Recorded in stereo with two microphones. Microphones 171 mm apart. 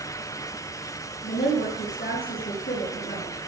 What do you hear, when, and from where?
1.2 s a woman speaking: 75° left (ahead or behind), 6 m